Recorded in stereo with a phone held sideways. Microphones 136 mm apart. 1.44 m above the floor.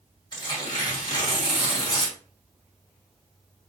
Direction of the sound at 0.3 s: 35° left (ahead or behind).